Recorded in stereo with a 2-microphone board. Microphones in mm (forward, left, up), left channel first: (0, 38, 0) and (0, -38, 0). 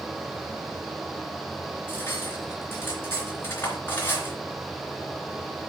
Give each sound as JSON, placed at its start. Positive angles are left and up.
{"t": 1.9, "sound": "cutlery clinking", "side_deg": 30, "distance_m": 3.5}